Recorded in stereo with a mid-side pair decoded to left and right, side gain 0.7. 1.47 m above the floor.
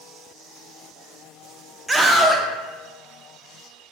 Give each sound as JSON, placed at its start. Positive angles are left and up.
{"t": 1.9, "sound": "a scream", "azimuth_deg": -10, "distance_m": 0.7}